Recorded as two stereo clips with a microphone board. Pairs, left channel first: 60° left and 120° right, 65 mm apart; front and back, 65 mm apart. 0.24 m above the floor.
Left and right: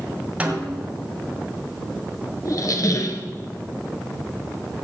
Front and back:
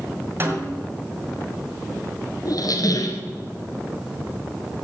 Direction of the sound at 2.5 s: 20° left.